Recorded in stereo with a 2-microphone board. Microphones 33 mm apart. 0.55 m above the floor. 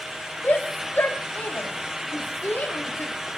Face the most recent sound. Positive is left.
turn(degrees=70)  # may be behind; listen again after turning